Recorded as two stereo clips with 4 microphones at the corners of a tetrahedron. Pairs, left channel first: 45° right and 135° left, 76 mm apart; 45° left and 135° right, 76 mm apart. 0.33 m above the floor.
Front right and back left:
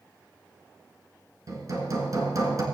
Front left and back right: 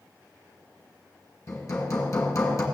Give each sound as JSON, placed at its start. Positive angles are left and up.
{"t": 1.5, "sound": "hammering", "azimuth_deg": 90, "distance_m": 2.0}